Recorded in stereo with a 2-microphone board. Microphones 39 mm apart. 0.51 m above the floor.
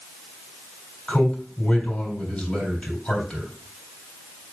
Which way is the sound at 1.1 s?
25° left (ahead or behind).